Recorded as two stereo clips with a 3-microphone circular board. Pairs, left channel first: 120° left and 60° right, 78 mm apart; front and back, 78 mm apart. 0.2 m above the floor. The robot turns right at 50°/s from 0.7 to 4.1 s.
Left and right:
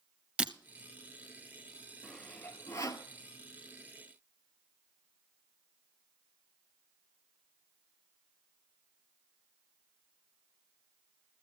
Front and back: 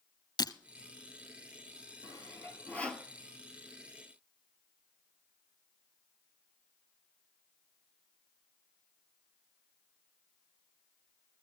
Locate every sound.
0.4 s breaking glass: 15° left, 0.8 m
2.0 s sawing: 30° left, 0.9 m; by 3.1 s 85° left, 0.9 m